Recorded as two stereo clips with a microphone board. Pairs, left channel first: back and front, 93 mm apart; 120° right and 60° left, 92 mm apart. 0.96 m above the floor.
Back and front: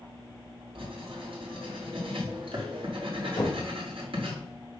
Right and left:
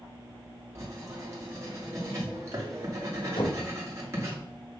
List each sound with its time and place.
0.8 s writing: straight ahead, 2.5 m
3.4 s knocking: 130° right, 3.5 m